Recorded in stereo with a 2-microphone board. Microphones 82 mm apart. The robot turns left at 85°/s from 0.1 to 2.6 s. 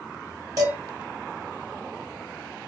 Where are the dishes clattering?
45° right (ahead or behind), 1.5 m; by 0.8 s 30° right (ahead or behind), 1.5 m.